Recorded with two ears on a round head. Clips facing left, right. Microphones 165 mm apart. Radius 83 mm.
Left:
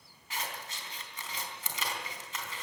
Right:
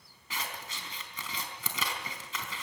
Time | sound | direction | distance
0.3 | scissors | 70° right (ahead or behind) | 3.5 m